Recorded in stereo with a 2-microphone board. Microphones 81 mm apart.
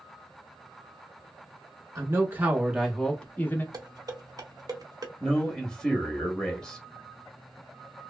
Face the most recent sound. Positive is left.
turn(degrees=5)  # may be behind; listen again after turning